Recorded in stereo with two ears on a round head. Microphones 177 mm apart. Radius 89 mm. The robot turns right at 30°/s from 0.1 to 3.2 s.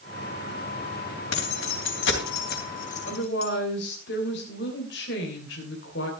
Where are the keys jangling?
85° left, 3 m; by 3.5 s 40° left (ahead or behind), 3 m.